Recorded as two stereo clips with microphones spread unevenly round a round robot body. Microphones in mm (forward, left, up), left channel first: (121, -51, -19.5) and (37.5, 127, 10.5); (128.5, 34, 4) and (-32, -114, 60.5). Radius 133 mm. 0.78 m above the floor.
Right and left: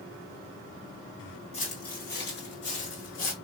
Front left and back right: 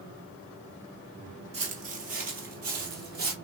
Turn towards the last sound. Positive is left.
turn(degrees=-105)